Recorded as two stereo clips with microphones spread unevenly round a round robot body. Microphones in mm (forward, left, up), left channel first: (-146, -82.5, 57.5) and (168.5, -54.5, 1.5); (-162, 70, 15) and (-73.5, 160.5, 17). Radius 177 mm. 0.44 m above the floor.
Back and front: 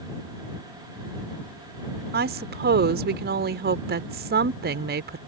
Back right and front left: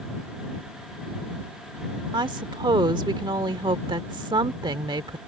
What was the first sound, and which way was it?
A woman speaking, 15° left.